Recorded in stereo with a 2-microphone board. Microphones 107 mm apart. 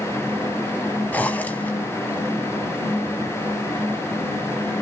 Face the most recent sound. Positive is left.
turn(degrees=15)  # may be behind; listen again after turning